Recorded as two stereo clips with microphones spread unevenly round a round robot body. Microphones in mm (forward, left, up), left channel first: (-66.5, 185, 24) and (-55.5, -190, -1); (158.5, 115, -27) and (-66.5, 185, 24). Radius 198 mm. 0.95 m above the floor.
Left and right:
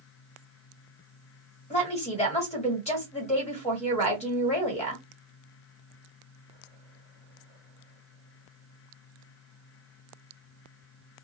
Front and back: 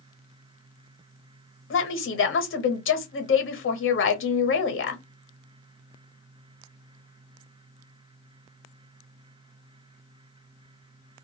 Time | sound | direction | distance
1.7 | a woman speaking | 15° left | 1.1 m